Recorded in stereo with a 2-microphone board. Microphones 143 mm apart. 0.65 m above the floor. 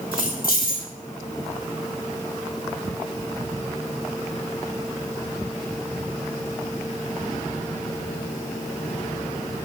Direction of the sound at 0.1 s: 75° left (ahead or behind).